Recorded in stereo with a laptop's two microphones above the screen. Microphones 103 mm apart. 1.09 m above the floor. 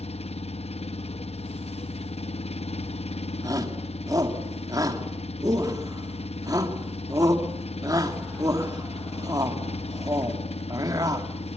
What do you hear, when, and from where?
0.0 s an engine running: 75° left (ahead or behind), 0.7 m
3.4 s a shout: 35° right (ahead or behind), 2.5 m